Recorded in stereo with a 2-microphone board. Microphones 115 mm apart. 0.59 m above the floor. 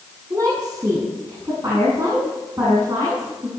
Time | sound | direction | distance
0.3 | a woman speaking | 30° right (ahead or behind) | 6.5 m